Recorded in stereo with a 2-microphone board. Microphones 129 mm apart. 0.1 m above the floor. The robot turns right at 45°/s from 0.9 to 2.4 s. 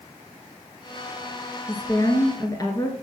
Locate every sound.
1.7 s a woman speaking: 25° left (ahead or behind), 1.3 m; by 2.9 s 30° left (ahead or behind), 1.3 m